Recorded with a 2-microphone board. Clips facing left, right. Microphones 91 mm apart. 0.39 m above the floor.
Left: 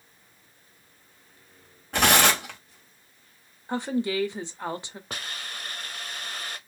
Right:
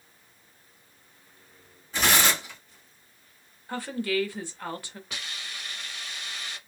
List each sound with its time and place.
1.9 s tearing paper: 65° left (ahead or behind), 1.6 m
3.7 s a woman speaking: 20° left (ahead or behind), 0.9 m
5.1 s a hiss: 45° left (ahead or behind), 0.8 m